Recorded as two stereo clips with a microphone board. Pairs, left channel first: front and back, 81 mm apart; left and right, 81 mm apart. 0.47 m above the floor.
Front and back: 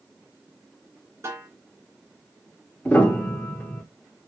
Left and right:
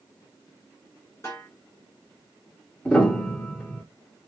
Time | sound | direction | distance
1.2 | a snare drum | 140° left | 2.0 m
2.9 | a piano | 35° left | 0.9 m